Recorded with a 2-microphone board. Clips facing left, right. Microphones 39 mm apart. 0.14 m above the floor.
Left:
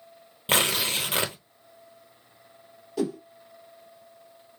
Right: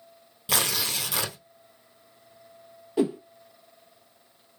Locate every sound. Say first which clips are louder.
0.5 s tearing paper: left 3 dB; 40° left (ahead or behind), 0.8 m
3.0 s a whoosh: right 4 dB; 25° right (ahead or behind), 0.8 m